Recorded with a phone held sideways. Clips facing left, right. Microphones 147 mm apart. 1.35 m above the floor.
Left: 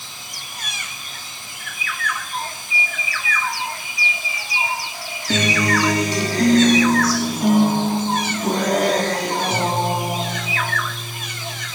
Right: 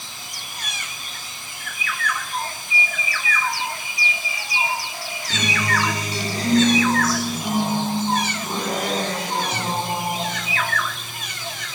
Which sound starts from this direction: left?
A guitar, at 5.3 s.